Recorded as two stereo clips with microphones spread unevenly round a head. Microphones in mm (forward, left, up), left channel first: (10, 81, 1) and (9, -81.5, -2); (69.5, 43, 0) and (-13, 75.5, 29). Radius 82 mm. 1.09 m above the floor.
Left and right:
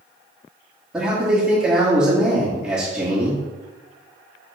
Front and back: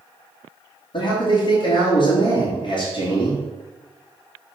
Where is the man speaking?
10° right, 2.5 m.